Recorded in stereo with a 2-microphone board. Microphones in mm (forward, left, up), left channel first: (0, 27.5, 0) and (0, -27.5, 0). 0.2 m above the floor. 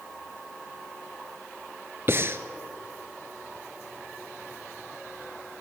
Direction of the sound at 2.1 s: 45° right (ahead or behind).